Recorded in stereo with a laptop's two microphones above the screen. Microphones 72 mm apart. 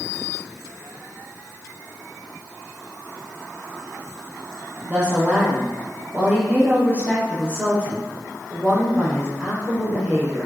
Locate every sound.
4.9 s a woman speaking: 30° right (ahead or behind), 1.4 m